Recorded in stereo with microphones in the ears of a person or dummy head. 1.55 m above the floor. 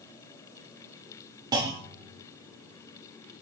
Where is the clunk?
25° right (ahead or behind), 0.5 m.